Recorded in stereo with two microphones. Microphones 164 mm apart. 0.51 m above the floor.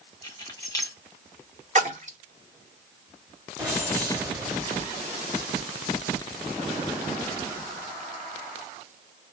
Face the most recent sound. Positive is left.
turn(degrees=-15)  # may be behind; listen again after turning